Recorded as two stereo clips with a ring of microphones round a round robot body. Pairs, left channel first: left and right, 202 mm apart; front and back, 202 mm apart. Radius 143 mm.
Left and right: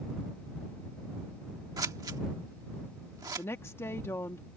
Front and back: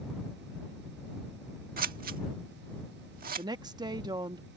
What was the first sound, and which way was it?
Scissors, 160° right.